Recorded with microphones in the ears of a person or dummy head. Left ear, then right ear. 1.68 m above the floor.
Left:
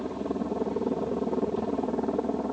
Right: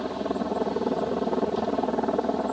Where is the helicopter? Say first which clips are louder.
Right 3 dB; 40° right (ahead or behind).